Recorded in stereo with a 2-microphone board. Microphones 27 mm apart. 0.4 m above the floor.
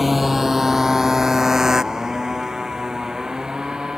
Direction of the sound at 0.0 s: 5° right (ahead or behind).